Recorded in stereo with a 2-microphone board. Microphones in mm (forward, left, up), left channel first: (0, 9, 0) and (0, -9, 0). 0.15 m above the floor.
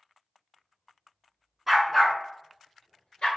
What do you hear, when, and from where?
1.7 s a dog barking: 10° right (ahead or behind), 0.6 m; by 3.3 s 60° left (ahead or behind), 1.0 m